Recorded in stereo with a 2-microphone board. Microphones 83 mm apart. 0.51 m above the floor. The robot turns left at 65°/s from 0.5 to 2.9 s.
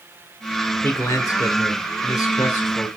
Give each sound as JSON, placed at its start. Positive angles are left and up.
{"t": 0.8, "sound": "a man speaking", "azimuth_deg": 150, "distance_m": 1.4}